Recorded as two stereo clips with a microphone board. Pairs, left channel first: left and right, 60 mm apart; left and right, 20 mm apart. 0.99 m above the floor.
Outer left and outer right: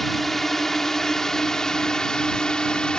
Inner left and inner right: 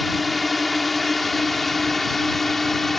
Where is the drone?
5° left (ahead or behind); by 3.0 s 15° left (ahead or behind).